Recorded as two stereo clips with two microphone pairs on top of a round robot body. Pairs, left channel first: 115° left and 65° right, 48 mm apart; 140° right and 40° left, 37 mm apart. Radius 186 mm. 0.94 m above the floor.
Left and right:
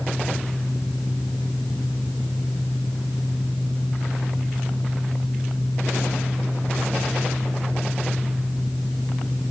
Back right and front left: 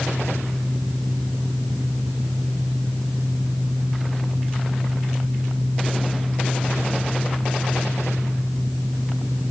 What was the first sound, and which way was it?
Only background noise.